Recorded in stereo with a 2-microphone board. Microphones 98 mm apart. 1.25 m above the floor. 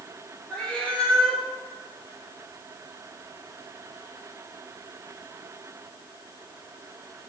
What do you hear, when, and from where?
0.5 s a cat meowing: 15° left (ahead or behind), 2.0 m